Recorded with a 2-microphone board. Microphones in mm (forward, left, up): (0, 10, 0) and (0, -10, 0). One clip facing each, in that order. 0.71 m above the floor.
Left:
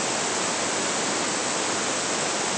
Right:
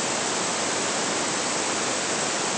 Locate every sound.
Only background noise.